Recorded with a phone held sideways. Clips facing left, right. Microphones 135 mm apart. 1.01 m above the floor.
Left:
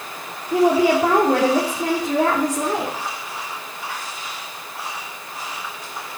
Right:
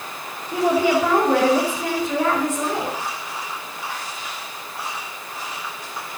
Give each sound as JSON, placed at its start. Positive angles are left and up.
{"t": 0.5, "sound": "a woman speaking", "side_deg": 35, "distance_m": 3.0}